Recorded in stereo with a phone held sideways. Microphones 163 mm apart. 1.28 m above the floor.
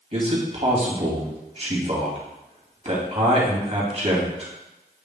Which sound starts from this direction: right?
A man speaking, at 0.1 s.